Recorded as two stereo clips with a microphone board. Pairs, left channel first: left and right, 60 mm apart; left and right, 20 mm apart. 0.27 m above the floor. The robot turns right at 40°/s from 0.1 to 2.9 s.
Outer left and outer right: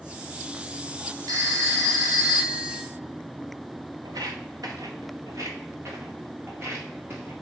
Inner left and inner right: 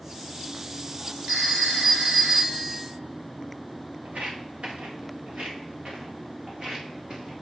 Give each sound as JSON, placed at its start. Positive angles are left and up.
{"t": 1.3, "sound": "a phone ringing", "azimuth_deg": -120, "distance_m": 2.5}
{"t": 4.0, "sound": "footsteps", "side_deg": -80, "distance_m": 1.2}